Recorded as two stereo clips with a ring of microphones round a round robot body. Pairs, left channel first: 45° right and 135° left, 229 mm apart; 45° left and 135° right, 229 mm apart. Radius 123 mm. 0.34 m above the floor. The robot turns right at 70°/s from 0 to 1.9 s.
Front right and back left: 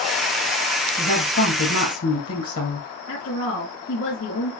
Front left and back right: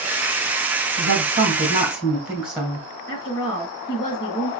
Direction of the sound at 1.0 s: 115° right.